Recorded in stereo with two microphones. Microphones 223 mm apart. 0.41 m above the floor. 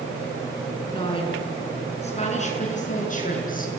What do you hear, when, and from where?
0.9 s a woman speaking: 20° left (ahead or behind), 5.5 m; by 3.7 s 40° left (ahead or behind), 6 m